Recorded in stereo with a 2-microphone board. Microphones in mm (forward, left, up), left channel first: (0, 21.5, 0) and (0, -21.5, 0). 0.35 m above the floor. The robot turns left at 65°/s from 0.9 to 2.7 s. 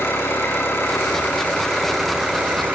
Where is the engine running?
65° left, 7.5 m; by 2.8 s 50° right, 7.5 m.